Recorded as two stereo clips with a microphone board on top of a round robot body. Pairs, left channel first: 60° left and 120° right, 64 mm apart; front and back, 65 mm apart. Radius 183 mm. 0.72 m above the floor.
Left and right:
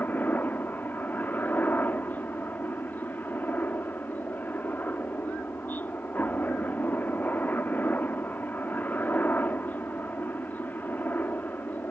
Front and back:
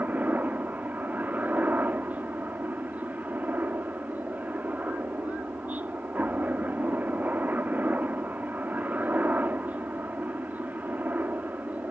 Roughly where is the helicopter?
Behind left.